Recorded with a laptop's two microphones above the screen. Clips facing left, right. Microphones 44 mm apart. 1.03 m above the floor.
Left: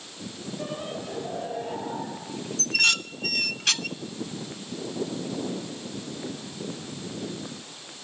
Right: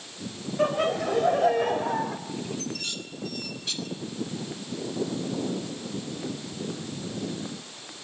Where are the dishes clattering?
75° left (ahead or behind), 0.8 m.